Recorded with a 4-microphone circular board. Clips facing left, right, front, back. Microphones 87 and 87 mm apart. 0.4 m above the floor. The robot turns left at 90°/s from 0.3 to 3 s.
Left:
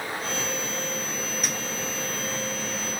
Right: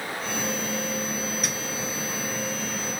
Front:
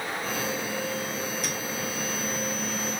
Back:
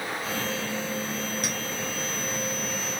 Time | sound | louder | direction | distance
1.4 | a clink | even, back 1 dB | 175° right | 1.5 m